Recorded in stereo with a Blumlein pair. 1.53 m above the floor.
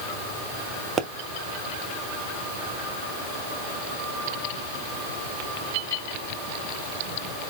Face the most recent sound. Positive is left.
turn(degrees=-25)